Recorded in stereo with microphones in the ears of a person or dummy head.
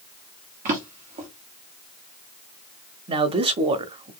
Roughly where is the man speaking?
Right.